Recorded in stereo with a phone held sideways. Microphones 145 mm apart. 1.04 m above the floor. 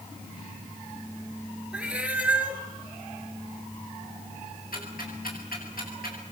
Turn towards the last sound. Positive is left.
turn(degrees=80)